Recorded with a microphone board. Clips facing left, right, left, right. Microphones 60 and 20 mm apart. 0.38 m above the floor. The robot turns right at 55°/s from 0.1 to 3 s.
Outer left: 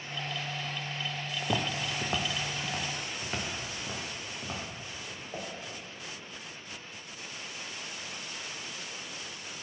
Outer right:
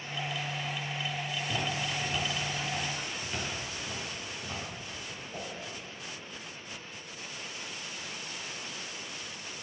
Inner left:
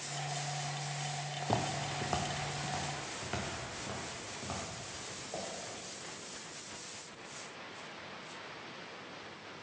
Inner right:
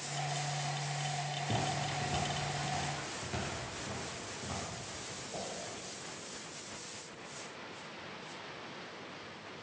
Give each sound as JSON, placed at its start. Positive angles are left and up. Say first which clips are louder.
{"t": 1.4, "sound": "footsteps", "louder": "outer left 3 dB, inner left 2 dB", "side_deg": 70, "distance_m": 0.8}